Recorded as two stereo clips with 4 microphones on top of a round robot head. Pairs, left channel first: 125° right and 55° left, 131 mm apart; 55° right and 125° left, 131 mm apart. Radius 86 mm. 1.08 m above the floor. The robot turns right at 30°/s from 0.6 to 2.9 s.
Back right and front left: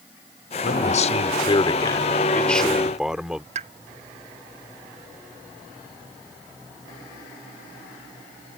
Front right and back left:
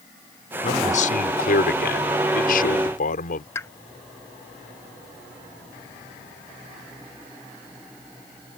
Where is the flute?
No flute in this recording.